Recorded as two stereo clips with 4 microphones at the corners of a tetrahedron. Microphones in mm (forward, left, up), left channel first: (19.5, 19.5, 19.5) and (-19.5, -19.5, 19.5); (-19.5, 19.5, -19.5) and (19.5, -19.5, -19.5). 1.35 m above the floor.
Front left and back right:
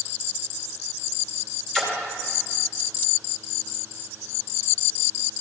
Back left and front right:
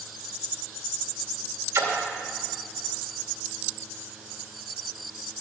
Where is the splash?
40° right, 2 m.